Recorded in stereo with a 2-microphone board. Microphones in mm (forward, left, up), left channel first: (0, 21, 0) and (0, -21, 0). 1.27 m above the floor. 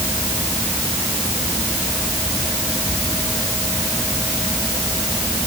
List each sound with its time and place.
Only background noise.